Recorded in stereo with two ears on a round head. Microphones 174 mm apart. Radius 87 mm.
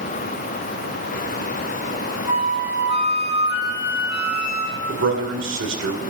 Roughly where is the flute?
Left.